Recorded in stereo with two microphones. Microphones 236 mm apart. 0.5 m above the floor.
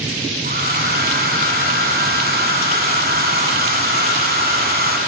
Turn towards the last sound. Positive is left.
turn(degrees=-45)  # may be behind; listen again after turning